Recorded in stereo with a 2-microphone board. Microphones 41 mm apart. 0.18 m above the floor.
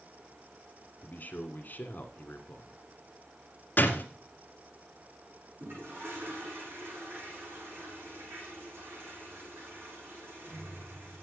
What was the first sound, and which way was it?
A man speaking, 45° left (ahead or behind).